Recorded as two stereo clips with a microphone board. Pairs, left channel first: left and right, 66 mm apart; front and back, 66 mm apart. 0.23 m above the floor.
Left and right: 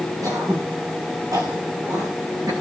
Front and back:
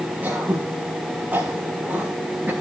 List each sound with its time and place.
0.2 s throat clearing: 115° right, 6 m